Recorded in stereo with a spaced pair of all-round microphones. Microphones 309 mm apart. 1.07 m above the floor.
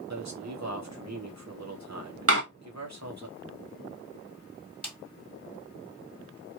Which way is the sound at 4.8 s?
5° left (ahead or behind).